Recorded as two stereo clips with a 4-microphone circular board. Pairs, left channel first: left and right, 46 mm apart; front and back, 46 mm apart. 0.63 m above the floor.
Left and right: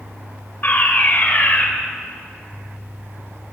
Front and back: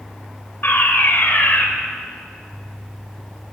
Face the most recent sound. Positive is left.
turn(degrees=45)